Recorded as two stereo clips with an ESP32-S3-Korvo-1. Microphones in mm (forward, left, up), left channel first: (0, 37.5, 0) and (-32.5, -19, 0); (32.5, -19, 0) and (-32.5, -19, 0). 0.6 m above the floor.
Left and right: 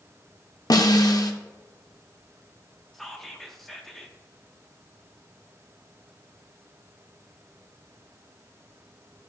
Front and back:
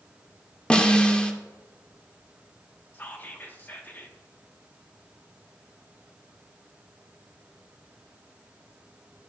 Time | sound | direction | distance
0.7 | a snare drum | 75° left | 0.8 m
2.9 | whispering | 20° right | 1.2 m